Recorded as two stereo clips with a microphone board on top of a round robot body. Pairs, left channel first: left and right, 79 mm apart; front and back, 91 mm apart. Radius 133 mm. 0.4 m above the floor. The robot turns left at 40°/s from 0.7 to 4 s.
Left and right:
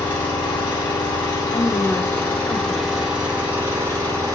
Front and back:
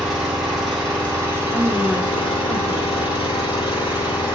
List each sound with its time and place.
0.0 s an engine running: 90° left, 3.5 m; by 4.4 s 45° right, 3.5 m
1.5 s a woman speaking: 75° left, 1.7 m; by 4.3 s 25° right, 1.7 m